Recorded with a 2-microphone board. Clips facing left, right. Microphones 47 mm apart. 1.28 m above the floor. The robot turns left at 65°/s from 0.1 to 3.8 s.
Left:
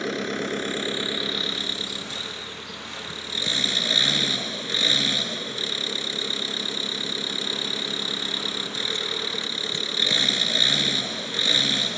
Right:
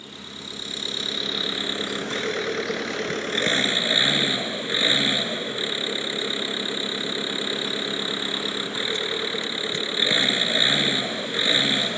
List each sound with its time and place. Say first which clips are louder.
0.0 s an engine running: left 12 dB; 80° left; by 12.0 s 160° right